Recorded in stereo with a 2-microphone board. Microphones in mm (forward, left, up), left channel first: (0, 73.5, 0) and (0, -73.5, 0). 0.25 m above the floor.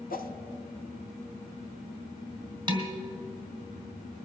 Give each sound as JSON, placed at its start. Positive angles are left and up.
{"t": 0.1, "sound": "a whoosh", "side_deg": 65, "distance_m": 0.7}
{"t": 2.7, "sound": "dishes clattering", "side_deg": -30, "distance_m": 1.8}